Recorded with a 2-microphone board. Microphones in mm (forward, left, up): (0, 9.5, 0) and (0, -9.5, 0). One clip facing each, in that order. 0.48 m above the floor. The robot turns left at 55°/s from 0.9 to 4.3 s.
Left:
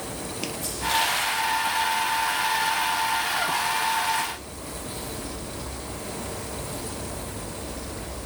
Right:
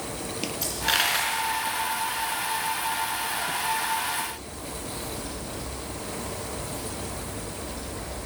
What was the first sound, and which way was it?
A dropped coin, 65° right (ahead or behind).